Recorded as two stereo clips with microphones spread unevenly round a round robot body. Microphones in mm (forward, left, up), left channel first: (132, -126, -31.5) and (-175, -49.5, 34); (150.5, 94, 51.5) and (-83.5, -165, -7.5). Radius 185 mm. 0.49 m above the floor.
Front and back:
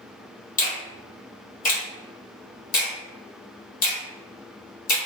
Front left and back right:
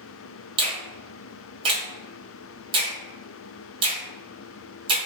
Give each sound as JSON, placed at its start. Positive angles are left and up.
{"t": 0.6, "sound": "a finger snap", "azimuth_deg": -65, "distance_m": 1.0}